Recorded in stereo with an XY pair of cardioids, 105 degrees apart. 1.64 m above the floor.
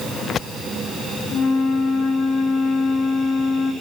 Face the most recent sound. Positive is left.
turn(degrees=60)